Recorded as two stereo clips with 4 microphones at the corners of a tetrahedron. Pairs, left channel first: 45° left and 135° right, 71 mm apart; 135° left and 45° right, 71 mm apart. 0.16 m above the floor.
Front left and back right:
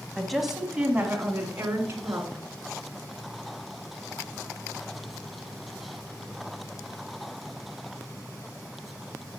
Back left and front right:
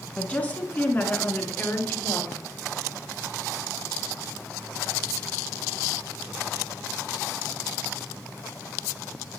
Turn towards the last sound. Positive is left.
turn(degrees=180)